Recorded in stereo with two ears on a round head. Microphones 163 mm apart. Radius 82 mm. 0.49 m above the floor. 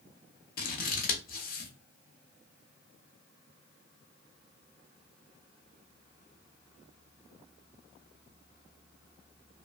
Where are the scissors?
50° left (ahead or behind), 0.9 m.